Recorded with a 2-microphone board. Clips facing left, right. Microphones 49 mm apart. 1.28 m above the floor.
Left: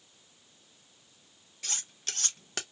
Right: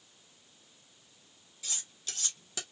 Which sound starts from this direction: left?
Cutlery clinking, at 1.6 s.